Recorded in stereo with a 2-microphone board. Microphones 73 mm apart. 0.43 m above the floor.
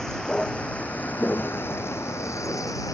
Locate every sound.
0.0 s a vehicle: 10° left (ahead or behind); by 3.0 s 60° left (ahead or behind)
1.2 s footsteps: 20° left (ahead or behind); by 2.8 s 20° right (ahead or behind)